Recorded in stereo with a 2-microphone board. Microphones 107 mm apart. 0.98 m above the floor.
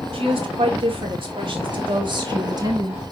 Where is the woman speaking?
60° right (ahead or behind), 3 m; by 3.0 s 30° right (ahead or behind), 1.3 m.